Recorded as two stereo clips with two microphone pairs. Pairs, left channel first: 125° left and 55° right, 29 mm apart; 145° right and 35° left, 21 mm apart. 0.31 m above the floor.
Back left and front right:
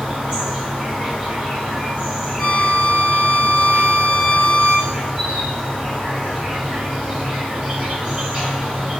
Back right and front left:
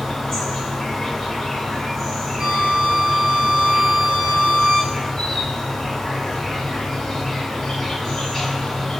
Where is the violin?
50° left, 0.7 m.